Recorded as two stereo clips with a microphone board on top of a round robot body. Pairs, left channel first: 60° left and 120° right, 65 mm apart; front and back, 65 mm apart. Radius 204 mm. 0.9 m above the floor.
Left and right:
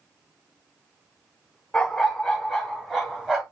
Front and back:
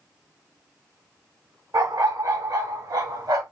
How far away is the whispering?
No whispering in this recording.